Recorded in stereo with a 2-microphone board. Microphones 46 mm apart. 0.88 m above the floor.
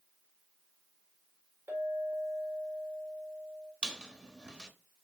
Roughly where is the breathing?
No breathing in this recording.